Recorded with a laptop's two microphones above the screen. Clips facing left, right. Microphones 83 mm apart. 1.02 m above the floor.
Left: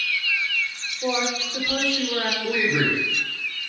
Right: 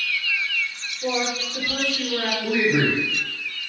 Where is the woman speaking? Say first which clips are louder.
Even; 30° left (ahead or behind), 0.7 m.